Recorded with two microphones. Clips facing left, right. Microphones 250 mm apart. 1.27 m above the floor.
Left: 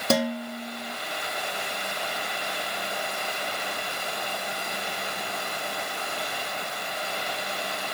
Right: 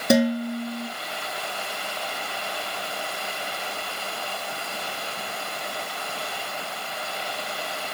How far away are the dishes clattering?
About 2.5 m.